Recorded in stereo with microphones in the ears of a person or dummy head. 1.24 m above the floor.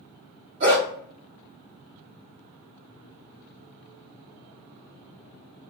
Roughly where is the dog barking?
Right.